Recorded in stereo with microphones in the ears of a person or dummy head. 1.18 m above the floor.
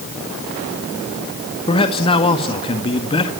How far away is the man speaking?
About 1.9 m.